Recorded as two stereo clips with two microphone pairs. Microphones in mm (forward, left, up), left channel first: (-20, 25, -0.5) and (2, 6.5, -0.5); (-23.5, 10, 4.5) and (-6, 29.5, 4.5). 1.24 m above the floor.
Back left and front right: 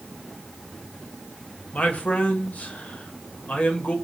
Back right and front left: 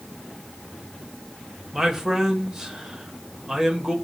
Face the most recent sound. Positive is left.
turn(degrees=120)